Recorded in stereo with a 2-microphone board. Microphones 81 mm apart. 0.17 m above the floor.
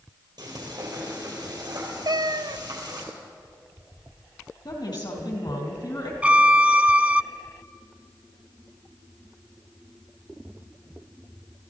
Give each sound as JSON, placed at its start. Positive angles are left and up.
{"t": 0.4, "sound": "frying", "side_deg": -60, "distance_m": 4.5}
{"t": 2.0, "sound": "a cat meowing", "side_deg": -65, "distance_m": 0.5}
{"t": 4.7, "sound": "a woman speaking", "side_deg": 65, "distance_m": 4.0}
{"t": 6.2, "sound": "a violin", "side_deg": -20, "distance_m": 0.5}